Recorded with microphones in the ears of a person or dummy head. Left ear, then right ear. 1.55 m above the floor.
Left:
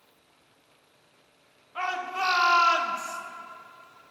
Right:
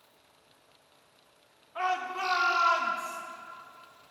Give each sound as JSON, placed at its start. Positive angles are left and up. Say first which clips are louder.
{"t": 1.8, "sound": "a shout", "louder": "left 1 dB", "side_deg": 10, "distance_m": 1.4}